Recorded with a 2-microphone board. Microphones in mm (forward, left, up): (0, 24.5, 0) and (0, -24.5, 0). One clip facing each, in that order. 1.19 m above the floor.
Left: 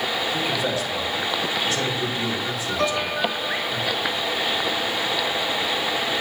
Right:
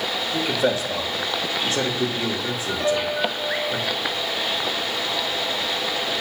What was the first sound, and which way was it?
A man speaking, 35° right (ahead or behind).